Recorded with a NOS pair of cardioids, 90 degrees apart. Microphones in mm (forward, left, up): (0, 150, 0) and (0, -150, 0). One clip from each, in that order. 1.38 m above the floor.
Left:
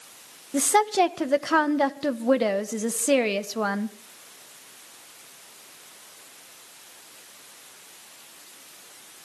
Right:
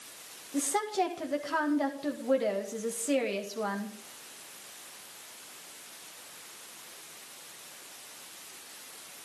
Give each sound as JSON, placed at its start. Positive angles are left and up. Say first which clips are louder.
{"t": 0.5, "sound": "a woman speaking", "louder": "left 9 dB", "azimuth_deg": 60, "distance_m": 1.7}